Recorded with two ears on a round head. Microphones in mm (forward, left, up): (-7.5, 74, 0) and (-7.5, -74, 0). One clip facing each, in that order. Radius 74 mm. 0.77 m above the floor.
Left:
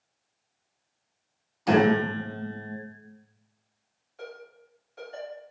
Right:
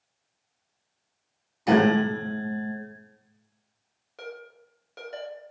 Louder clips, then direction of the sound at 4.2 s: Right 2 dB; 70° right (ahead or behind).